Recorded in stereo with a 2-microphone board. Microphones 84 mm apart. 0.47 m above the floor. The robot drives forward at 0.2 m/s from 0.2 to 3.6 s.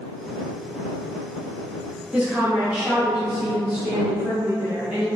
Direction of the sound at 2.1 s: 15° right (ahead or behind).